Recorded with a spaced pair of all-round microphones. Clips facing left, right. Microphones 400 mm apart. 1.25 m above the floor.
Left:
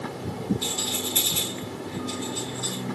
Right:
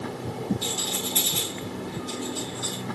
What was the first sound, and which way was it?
A rattle, 30° right (ahead or behind).